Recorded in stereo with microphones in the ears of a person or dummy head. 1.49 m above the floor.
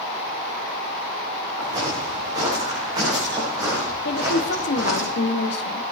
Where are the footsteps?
25° right (ahead or behind), 7.5 m; by 5.0 s 15° right (ahead or behind), 10 m.